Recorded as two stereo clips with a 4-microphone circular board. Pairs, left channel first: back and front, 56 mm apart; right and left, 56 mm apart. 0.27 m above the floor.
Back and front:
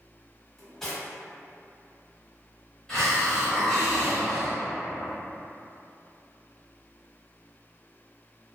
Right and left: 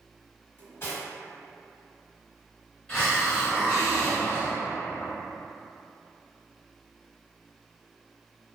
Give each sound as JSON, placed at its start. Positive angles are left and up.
{"t": 0.6, "sound": "cutlery clinking", "azimuth_deg": -100, "distance_m": 1.0}
{"t": 2.9, "sound": "a hiss", "azimuth_deg": -125, "distance_m": 1.3}